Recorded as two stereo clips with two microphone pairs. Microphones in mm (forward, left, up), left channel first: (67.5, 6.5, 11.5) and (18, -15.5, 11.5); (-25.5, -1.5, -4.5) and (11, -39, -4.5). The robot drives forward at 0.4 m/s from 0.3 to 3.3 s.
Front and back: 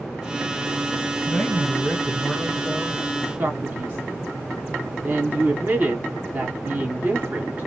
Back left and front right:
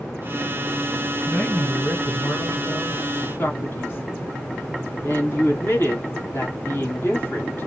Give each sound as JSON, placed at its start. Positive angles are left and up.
{"t": 1.3, "sound": "a man speaking", "azimuth_deg": 85, "distance_m": 2.5}
{"t": 3.4, "sound": "a man speaking", "azimuth_deg": 160, "distance_m": 2.0}